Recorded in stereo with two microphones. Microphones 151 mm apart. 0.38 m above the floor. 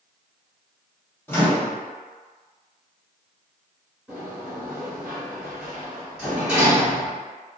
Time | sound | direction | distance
1.3 | a microwave | 15° left (ahead or behind) | 0.8 m
4.1 | a sliding door | 5° right (ahead or behind) | 1.7 m